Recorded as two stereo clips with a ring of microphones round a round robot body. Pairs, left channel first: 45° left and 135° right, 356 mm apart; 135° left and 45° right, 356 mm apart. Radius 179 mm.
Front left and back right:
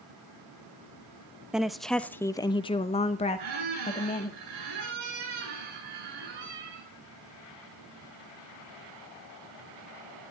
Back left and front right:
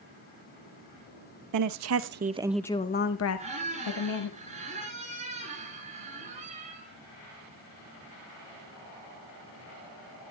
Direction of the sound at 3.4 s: 115° right.